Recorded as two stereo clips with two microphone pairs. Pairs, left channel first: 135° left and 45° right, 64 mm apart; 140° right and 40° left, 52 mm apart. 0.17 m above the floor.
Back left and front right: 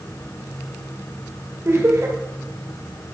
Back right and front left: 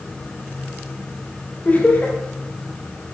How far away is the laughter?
About 4 m.